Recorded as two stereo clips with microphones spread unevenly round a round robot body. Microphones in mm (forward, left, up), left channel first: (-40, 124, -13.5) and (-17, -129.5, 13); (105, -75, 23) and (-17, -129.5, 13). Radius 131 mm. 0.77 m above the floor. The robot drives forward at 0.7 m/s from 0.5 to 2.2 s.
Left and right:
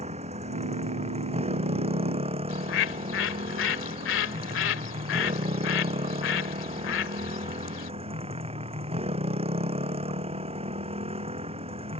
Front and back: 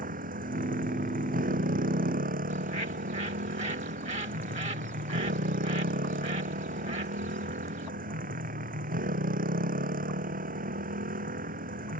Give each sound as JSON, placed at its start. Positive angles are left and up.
{"t": 0.0, "sound": "a motorcycle", "azimuth_deg": -150}
{"t": 2.5, "sound": "a bird", "azimuth_deg": 135}